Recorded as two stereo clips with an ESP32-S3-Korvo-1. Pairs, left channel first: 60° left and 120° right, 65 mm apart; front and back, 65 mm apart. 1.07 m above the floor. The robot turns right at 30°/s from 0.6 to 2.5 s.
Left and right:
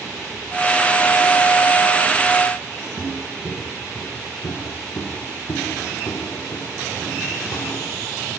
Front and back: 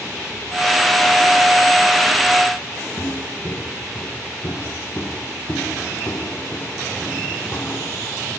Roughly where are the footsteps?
Ahead.